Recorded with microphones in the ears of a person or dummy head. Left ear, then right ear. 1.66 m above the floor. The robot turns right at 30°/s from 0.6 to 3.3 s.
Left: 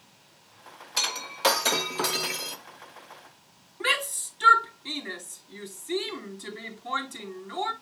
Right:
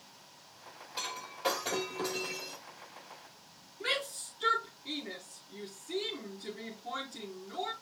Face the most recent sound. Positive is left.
turn(degrees=50)  # may be behind; listen again after turning